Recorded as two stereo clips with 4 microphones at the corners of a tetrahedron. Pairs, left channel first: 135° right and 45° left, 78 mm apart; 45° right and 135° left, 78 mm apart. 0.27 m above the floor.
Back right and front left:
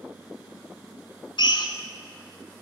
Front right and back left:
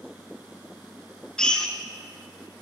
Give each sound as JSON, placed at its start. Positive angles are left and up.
{"t": 1.4, "sound": "a drill", "azimuth_deg": -125, "distance_m": 1.3}